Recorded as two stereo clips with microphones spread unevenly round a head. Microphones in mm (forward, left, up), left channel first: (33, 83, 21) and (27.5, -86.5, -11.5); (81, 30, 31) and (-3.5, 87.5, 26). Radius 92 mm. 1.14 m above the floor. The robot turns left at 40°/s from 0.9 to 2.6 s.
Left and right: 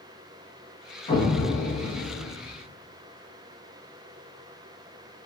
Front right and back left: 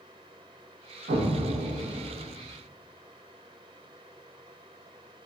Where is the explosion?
150° left, 0.9 m; by 2.3 s 100° left, 0.9 m.